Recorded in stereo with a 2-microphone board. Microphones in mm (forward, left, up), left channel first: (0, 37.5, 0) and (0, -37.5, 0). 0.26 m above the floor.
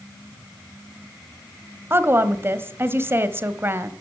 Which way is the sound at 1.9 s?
30° right (ahead or behind).